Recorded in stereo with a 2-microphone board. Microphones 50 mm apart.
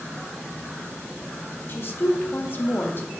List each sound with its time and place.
1.7 s a woman speaking: 45° left (ahead or behind), 0.6 m